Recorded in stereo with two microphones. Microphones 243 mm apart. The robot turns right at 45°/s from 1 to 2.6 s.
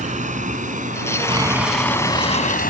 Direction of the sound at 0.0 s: 30° right (ahead or behind).